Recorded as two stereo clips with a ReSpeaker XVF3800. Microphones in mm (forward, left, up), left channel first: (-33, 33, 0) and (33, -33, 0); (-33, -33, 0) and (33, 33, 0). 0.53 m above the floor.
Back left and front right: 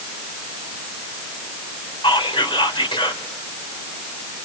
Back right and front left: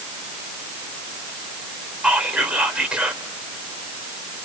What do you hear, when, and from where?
2.0 s whispering: 125° left, 2 m